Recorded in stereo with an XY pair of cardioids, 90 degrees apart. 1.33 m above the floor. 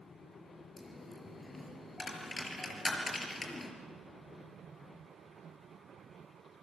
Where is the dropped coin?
30° left, 5 m.